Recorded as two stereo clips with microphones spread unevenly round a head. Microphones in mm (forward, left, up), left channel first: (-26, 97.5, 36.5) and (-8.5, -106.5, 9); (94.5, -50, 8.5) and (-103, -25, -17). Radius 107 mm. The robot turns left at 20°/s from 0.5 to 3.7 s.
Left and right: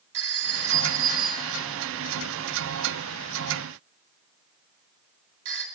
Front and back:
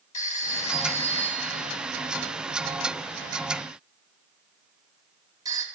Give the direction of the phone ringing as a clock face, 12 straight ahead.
2 o'clock.